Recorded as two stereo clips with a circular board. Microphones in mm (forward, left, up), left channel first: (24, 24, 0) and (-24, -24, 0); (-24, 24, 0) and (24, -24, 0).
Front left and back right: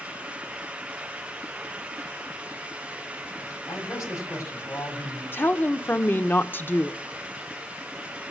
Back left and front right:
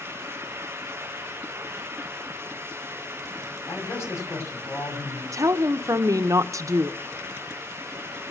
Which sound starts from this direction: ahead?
A woman speaking, at 5.3 s.